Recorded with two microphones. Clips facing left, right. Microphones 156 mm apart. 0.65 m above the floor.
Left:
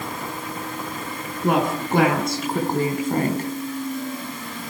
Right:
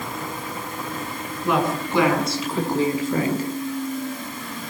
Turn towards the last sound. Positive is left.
turn(degrees=55)  # may be behind; listen again after turning